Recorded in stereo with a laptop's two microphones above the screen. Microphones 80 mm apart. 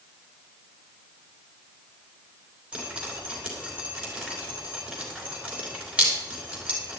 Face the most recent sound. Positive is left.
turn(degrees=-15)  # may be behind; listen again after turning